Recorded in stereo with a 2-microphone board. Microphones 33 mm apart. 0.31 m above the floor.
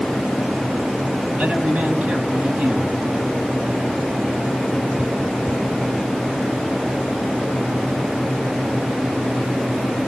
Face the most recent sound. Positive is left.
turn(degrees=-55)  # may be behind; listen again after turning